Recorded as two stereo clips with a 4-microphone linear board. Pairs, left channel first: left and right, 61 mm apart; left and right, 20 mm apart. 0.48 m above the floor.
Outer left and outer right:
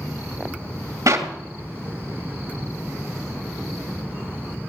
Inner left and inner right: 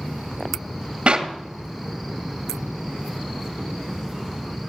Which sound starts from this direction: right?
A clap, at 1.1 s.